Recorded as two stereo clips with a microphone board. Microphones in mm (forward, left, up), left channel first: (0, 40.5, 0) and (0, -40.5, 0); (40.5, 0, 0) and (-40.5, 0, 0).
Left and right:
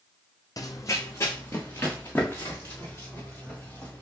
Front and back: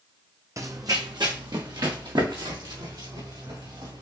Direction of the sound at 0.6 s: 130° left.